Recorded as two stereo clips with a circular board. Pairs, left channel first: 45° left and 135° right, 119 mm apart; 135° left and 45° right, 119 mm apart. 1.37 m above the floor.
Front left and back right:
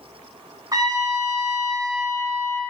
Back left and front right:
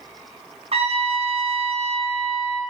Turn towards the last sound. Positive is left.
turn(degrees=-75)